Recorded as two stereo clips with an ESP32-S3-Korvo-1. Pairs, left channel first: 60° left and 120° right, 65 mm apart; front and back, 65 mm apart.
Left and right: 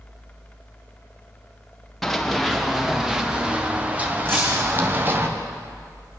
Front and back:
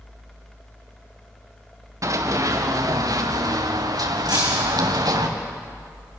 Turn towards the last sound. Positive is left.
turn(degrees=-175)